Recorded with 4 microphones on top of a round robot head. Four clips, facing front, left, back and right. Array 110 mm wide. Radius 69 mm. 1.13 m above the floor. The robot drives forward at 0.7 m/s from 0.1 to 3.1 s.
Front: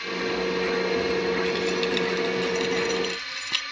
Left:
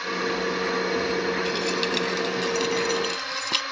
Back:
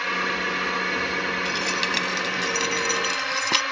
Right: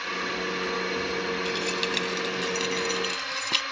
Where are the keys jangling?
170° left.